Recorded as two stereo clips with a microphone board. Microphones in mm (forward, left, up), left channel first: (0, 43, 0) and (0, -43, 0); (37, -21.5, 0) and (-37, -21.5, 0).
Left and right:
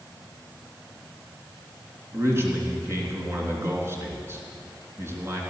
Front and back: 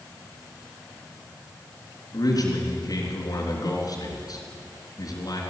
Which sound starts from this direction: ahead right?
A man speaking, at 2.1 s.